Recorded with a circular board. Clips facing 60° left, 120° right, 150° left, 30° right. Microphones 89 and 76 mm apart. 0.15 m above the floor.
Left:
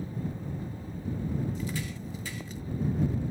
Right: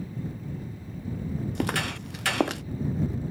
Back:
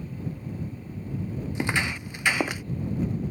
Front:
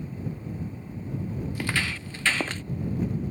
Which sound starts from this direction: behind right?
Footsteps, at 1.6 s.